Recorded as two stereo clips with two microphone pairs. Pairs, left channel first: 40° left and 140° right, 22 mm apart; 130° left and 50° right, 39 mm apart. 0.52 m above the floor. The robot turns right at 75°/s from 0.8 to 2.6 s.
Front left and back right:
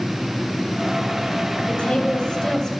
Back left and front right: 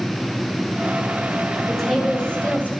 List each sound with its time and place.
1.7 s a woman speaking: 50° left, 1.6 m; by 2.7 s 120° left, 1.6 m